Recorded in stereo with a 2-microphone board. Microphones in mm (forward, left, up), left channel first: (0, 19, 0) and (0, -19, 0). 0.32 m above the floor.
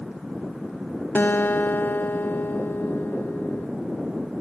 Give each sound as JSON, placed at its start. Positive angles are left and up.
{"t": 1.1, "sound": "a guitar", "side_deg": 80, "distance_m": 0.5}